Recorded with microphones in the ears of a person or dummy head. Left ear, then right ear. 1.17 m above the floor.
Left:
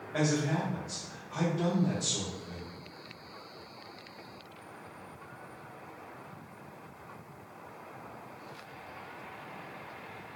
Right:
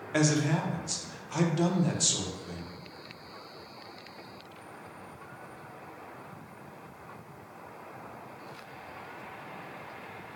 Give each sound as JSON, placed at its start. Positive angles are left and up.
{"t": 0.1, "sound": "a man speaking", "side_deg": -80, "distance_m": 0.7}